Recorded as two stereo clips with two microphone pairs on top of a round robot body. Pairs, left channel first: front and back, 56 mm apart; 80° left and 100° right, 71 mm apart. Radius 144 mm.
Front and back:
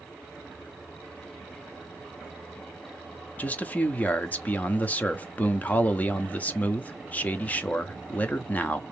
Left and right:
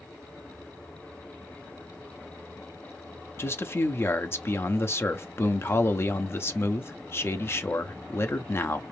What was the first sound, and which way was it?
A man speaking, 45° left.